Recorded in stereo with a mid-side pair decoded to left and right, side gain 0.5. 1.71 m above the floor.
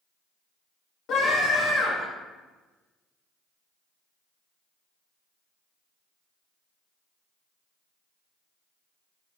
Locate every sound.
1.1 s a scream: 65° left, 1.1 m